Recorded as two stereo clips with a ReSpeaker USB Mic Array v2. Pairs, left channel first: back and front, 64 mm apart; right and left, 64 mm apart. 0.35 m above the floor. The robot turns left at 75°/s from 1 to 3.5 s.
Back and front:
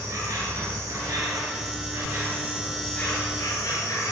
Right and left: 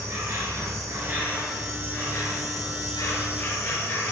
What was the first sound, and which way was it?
An insect, 40° left.